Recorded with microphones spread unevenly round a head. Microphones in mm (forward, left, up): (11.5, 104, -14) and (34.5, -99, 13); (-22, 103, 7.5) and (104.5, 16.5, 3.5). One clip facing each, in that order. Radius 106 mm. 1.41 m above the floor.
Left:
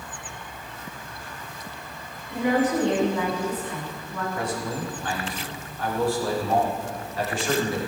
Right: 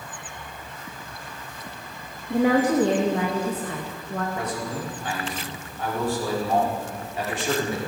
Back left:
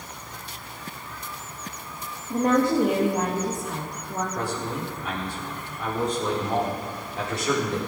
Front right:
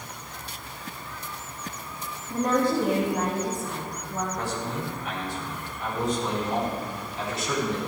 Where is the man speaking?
155° right, 5 m.